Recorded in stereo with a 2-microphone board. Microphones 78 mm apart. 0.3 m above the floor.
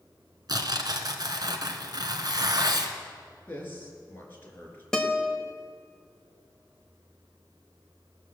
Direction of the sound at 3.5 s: 30° left (ahead or behind).